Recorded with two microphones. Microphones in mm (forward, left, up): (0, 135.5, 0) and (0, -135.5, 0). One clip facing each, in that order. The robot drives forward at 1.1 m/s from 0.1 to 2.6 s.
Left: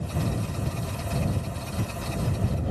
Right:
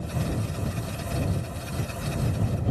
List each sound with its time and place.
Only background noise.